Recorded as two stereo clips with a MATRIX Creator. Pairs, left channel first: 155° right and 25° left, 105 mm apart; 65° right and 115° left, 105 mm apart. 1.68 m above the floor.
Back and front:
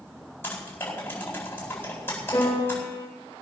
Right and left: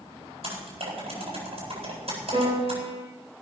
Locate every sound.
0.4 s typing on a keyboard: 135° left, 8 m
2.3 s a piano: 140° left, 6.5 m